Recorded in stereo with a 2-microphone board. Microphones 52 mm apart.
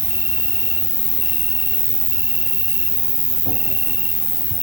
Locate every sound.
0.0 s an insect: 60° right (ahead or behind), 1.2 m